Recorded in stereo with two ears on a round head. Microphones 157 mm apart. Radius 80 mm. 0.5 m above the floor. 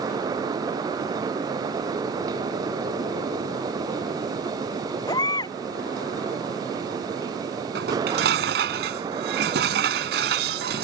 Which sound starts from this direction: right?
Dishes clattering, at 7.8 s.